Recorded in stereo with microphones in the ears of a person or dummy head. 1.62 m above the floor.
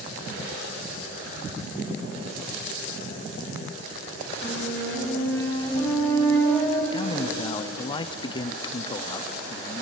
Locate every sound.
4.4 s a flute: 20° left (ahead or behind), 4.5 m
6.9 s a man speaking: 30° left (ahead or behind), 0.6 m